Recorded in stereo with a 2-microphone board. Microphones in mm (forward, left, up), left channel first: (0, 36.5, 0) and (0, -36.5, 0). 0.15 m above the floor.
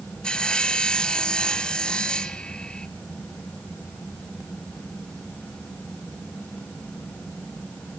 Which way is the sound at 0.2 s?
15° left (ahead or behind).